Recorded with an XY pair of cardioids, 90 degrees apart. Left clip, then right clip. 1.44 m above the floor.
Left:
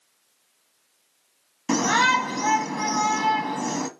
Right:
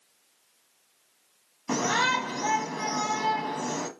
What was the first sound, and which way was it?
A shout, 50° left.